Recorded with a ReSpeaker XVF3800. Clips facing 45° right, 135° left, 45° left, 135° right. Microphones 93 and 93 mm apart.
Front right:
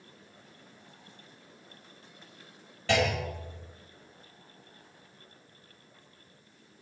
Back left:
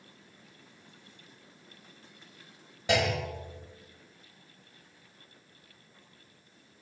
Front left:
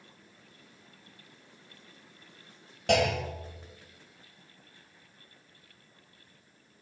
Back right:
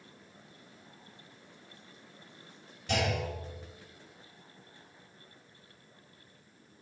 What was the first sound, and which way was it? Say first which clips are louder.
A clunk: front right 1 dB, front left 6 dB; 60° left.